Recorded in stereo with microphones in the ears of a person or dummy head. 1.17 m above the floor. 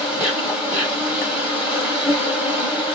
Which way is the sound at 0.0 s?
5° right (ahead or behind).